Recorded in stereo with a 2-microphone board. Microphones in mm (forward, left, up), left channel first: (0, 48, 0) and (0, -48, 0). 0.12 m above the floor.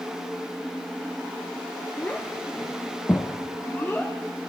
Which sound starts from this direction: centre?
A child speaking, at 2.0 s.